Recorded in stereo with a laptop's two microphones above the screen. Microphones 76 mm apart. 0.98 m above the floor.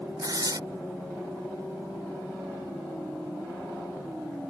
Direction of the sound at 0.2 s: 55° right (ahead or behind).